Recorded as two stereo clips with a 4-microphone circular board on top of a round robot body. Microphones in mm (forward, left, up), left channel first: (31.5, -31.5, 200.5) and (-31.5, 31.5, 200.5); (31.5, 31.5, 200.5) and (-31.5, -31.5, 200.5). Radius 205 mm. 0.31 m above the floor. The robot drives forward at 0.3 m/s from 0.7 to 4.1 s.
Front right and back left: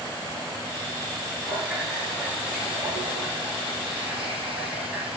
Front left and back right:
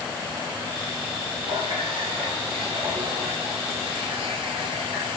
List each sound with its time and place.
1.4 s a running tap: 140° right, 4 m; by 5.2 s 145° right, 5 m